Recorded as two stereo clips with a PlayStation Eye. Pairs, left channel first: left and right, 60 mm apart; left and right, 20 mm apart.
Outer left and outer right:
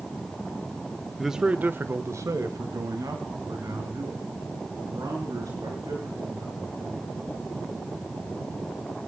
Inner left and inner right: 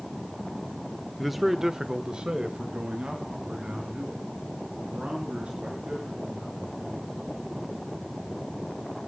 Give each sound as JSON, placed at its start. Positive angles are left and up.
{"t": 1.2, "sound": "a man speaking", "side_deg": 0, "distance_m": 1.0}